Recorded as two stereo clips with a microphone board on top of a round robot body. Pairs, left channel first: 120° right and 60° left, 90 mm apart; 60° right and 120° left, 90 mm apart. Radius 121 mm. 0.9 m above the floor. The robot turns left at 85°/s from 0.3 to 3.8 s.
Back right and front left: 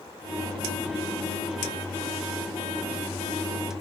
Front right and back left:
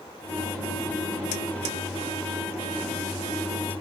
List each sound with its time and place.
Only background noise.